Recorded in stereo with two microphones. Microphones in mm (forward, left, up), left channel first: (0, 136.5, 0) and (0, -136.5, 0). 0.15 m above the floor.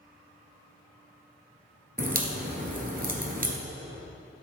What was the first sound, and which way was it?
A crack, 35° right (ahead or behind).